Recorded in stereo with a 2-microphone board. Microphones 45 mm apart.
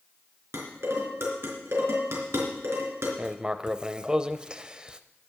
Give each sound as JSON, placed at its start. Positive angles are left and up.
{"t": 0.5, "sound": "dishes clattering", "side_deg": -65, "distance_m": 3.5}
{"t": 3.2, "sound": "writing", "side_deg": -15, "distance_m": 0.6}